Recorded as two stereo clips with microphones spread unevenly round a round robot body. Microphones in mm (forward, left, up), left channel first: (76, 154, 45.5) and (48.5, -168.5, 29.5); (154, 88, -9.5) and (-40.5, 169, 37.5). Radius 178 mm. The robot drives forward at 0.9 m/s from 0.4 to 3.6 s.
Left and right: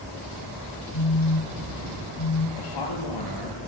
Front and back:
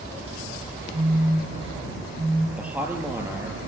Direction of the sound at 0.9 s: 85° left.